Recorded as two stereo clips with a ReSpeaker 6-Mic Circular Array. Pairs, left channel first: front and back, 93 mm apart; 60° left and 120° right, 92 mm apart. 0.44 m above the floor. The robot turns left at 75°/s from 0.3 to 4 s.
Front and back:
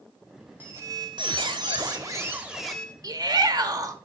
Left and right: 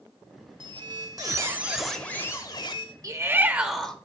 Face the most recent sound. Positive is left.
turn(degrees=135)